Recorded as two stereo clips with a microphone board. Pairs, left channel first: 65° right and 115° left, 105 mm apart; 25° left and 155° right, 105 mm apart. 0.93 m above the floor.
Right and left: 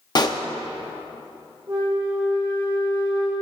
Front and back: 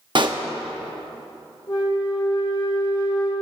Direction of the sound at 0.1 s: 115° right.